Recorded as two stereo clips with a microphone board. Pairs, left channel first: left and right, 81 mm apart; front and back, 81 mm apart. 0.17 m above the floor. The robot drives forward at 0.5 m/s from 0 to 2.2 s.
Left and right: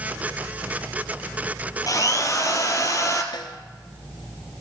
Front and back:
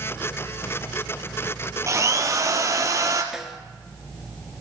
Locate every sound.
1.9 s a drill: 130° left, 2 m; by 3.2 s 135° left, 2 m
3.3 s a snare drum: 95° left, 1.0 m